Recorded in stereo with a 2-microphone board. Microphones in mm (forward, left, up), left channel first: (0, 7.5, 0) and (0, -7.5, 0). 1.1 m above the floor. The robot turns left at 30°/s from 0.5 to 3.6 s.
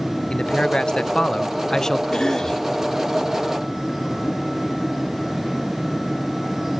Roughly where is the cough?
Left.